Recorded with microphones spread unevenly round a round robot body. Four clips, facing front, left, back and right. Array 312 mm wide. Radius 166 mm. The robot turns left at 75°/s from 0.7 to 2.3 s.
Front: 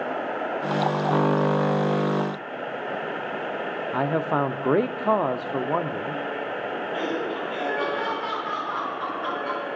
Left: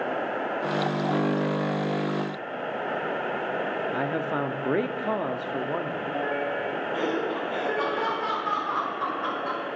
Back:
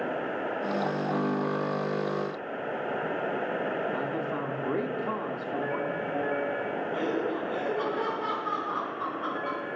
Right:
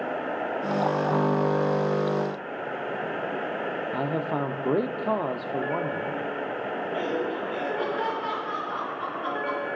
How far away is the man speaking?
About 0.8 m.